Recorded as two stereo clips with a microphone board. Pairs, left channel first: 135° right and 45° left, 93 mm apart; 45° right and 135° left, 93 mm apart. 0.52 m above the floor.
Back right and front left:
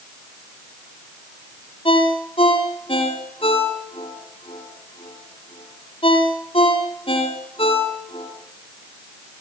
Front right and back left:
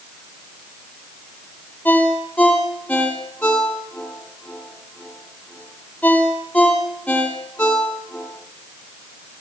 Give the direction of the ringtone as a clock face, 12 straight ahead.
4 o'clock.